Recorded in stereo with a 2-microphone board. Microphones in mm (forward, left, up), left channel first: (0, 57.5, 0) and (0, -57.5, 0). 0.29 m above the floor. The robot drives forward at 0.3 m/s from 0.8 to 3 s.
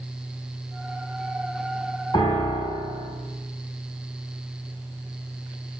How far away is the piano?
About 0.9 m.